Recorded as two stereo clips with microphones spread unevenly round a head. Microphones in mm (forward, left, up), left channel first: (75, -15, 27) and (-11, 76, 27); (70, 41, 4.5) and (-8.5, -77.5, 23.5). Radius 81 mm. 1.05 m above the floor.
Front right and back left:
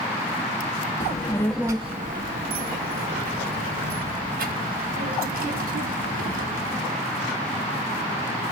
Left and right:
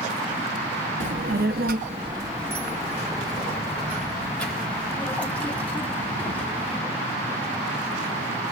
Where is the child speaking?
95° right, 0.9 m; by 6.8 s 135° left, 6 m.